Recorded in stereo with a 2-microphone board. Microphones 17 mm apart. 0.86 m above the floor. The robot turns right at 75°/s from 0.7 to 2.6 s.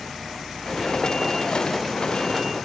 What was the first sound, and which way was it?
Only background noise.